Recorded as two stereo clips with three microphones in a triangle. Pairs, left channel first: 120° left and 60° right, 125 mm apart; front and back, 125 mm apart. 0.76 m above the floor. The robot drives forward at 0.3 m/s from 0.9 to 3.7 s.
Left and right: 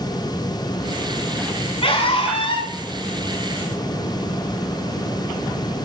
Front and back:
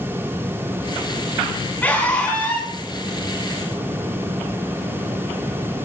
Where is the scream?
80° left, 6.5 m.